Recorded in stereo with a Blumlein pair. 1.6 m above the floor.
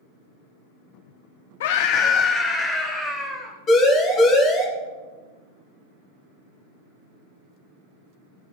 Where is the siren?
25° left, 4 m.